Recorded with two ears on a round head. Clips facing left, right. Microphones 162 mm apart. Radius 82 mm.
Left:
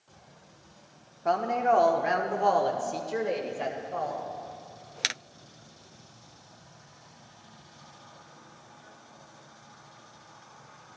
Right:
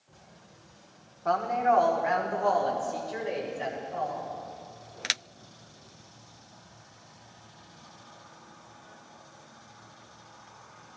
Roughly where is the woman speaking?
Left.